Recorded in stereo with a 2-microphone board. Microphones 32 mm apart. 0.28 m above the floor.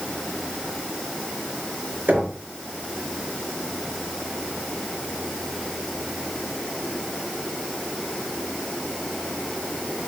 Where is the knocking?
75° right (ahead or behind), 4 m.